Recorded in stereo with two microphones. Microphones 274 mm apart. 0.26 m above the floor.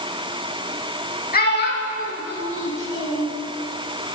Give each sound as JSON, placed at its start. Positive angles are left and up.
{"t": 1.3, "sound": "a child speaking", "side_deg": 30, "distance_m": 0.9}